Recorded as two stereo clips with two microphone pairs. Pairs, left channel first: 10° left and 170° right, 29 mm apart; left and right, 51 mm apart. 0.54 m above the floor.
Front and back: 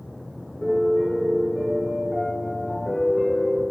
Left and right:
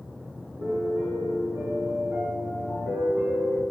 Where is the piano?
90° right, 3 m.